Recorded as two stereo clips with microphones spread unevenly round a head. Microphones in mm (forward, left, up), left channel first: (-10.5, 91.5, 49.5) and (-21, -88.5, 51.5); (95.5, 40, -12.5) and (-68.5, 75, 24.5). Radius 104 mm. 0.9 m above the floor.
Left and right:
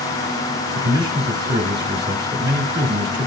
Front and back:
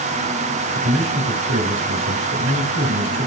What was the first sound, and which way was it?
A man speaking, 160° right.